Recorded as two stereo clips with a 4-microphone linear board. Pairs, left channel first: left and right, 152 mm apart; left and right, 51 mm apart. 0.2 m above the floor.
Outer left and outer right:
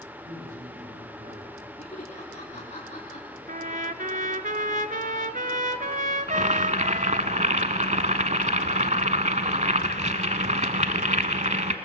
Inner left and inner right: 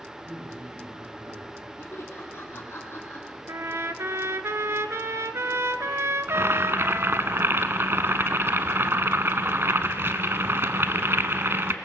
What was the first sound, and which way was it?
A man speaking, 70° right (ahead or behind).